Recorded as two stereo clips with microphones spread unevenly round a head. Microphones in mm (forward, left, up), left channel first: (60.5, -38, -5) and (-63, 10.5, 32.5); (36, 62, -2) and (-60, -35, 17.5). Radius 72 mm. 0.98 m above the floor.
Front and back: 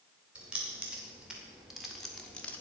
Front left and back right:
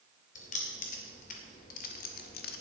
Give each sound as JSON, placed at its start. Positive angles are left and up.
{"t": 0.3, "sound": "keys jangling", "azimuth_deg": 75, "distance_m": 3.0}